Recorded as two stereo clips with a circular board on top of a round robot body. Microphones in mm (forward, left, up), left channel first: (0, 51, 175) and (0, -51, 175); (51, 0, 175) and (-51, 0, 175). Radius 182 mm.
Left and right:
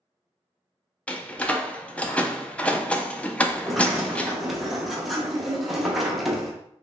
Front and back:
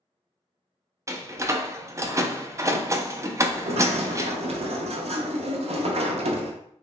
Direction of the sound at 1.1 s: 155° left.